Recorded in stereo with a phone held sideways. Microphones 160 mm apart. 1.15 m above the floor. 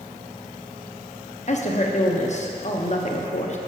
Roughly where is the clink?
I don't hear a clink.